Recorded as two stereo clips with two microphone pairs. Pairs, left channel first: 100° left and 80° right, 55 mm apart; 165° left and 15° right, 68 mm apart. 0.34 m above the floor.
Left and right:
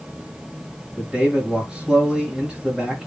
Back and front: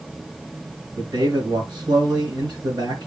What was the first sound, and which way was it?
A man speaking, 5° right.